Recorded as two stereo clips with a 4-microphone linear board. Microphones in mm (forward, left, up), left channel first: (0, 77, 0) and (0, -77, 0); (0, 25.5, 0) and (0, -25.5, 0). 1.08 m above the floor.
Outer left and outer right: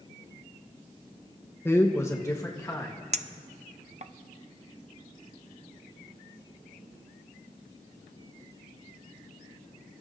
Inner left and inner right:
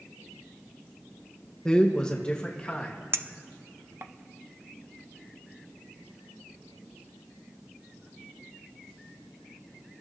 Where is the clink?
50° right (ahead or behind), 0.6 m.